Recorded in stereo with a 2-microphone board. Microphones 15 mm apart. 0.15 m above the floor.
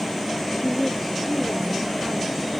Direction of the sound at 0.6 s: 5° left (ahead or behind).